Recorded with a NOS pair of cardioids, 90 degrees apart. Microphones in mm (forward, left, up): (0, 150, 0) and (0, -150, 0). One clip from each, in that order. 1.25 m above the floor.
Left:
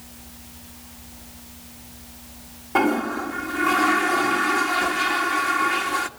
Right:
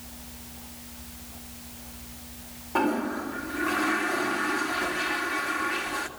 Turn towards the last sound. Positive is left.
turn(degrees=30)